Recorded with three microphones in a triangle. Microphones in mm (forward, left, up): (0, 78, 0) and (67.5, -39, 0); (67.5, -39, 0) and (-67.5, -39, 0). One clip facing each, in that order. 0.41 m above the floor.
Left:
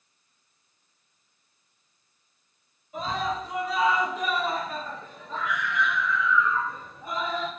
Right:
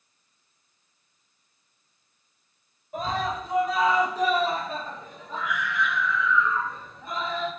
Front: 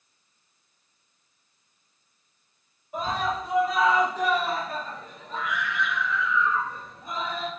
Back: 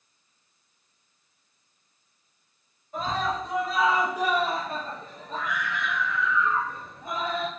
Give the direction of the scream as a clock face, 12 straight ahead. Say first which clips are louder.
Right 1 dB, even; 2 o'clock.